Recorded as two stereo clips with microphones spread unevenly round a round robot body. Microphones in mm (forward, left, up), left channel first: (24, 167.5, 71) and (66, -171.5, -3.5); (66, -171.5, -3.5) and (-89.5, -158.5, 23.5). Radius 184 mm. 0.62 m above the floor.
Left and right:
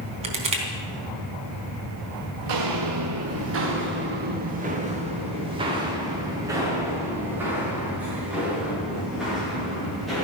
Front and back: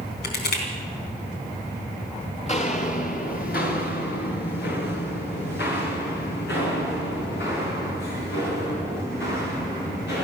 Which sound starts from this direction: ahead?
Crushing, at 0.2 s.